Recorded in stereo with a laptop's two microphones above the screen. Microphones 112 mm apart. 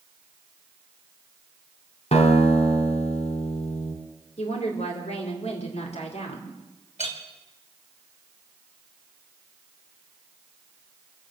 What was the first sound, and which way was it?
A guitar, 70° left (ahead or behind).